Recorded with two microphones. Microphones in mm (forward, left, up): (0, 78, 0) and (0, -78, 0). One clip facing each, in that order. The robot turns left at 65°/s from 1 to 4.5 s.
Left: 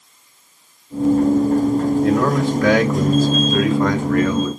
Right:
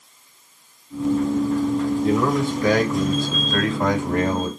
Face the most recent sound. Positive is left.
turn(degrees=-45)